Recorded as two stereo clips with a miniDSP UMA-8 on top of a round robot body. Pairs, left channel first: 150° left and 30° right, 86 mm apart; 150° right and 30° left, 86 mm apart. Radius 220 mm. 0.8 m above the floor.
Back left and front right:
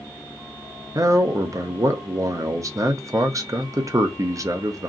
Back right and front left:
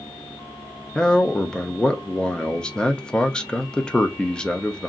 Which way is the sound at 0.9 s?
70° right.